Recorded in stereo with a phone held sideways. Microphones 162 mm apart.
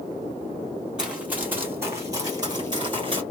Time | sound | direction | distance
1.0 | running footsteps | 5° right (ahead or behind) | 1.9 m